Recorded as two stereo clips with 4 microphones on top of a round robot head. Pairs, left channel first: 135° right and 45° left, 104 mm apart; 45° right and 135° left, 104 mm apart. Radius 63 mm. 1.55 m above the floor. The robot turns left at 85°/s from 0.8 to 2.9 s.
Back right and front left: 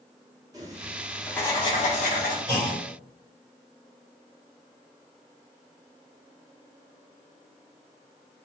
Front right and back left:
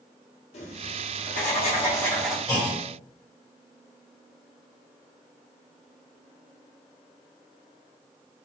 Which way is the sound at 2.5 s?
100° right.